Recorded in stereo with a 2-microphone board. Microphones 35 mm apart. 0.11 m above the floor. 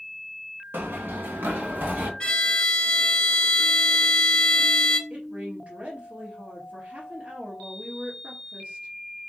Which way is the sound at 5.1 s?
40° right (ahead or behind).